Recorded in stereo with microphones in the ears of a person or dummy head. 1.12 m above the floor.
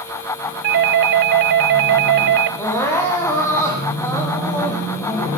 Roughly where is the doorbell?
Right.